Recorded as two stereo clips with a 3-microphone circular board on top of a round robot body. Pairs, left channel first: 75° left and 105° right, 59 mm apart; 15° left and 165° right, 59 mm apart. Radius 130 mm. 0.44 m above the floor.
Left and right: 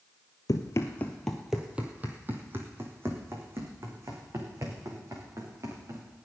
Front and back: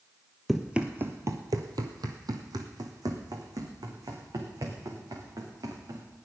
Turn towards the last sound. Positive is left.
turn(degrees=-145)